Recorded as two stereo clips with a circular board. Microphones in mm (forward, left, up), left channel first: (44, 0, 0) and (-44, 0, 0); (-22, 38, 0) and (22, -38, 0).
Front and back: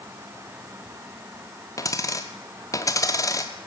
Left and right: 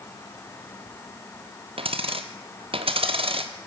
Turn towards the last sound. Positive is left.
turn(degrees=-55)